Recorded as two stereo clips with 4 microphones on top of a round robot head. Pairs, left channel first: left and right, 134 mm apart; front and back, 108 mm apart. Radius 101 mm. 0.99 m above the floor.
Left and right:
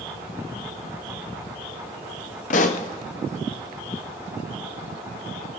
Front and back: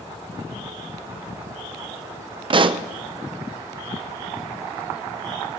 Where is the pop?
135° left, 0.5 m.